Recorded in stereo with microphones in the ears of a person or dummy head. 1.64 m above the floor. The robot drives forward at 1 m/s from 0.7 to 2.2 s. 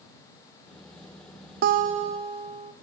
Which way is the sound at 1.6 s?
55° right (ahead or behind).